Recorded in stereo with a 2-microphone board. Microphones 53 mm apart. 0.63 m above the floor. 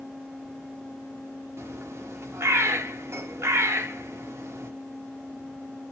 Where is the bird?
60° right (ahead or behind), 0.6 m.